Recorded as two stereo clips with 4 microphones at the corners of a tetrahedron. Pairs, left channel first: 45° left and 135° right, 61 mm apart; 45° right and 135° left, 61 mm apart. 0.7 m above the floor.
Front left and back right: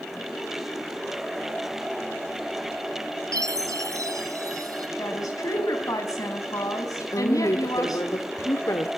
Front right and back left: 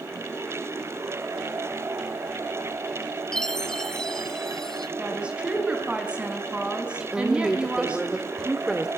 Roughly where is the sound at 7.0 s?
Ahead left.